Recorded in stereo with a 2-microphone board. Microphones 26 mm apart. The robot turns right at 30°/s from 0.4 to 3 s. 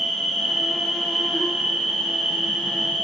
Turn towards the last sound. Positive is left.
turn(degrees=-105)